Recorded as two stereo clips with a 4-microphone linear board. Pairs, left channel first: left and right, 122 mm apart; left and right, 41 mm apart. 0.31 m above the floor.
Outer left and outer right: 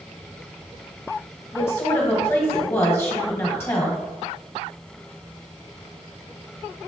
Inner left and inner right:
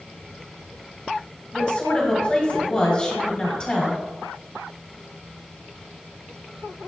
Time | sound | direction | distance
1.5 | a woman speaking | 20° left (ahead or behind) | 1.5 m